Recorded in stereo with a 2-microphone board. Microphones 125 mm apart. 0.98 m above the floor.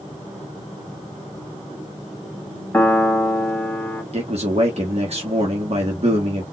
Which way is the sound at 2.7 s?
15° left (ahead or behind).